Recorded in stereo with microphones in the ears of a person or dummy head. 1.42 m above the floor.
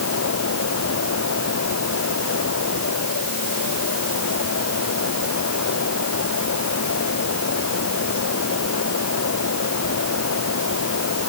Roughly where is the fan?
Left.